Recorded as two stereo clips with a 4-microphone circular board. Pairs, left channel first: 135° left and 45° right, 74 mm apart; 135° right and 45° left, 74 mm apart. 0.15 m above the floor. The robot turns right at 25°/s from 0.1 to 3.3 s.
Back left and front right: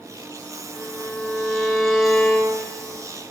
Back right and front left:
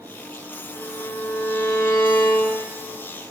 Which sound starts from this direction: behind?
A violin, at 0.7 s.